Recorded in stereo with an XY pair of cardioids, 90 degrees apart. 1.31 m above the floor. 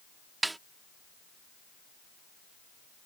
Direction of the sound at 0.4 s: 20° right.